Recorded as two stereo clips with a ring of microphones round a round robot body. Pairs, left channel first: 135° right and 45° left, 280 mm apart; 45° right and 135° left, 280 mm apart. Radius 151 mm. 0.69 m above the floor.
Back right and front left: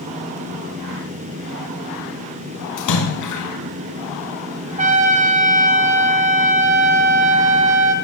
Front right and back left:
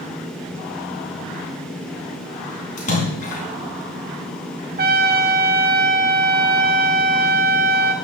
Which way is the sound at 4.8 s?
95° left.